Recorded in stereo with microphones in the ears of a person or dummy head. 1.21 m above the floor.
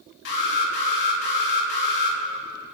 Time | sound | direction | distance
0.2 | an alarm | 60° left (ahead or behind) | 3 m